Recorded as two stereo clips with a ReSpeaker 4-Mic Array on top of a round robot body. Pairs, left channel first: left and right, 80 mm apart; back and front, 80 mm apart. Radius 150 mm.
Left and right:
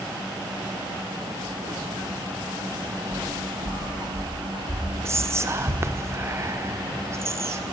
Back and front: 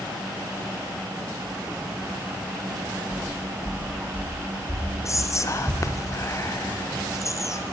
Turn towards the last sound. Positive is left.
turn(degrees=-140)